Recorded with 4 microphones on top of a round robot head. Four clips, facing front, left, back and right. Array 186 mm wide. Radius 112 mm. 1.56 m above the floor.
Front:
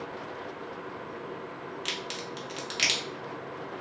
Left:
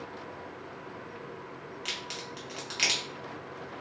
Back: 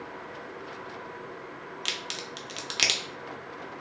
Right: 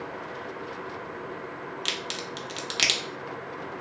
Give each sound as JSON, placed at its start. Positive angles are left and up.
{"t": 1.9, "sound": "a crack", "azimuth_deg": -135, "distance_m": 0.6}